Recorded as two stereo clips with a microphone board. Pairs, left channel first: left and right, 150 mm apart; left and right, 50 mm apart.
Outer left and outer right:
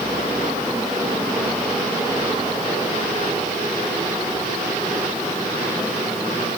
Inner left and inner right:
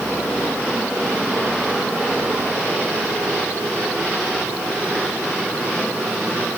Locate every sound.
Only background noise.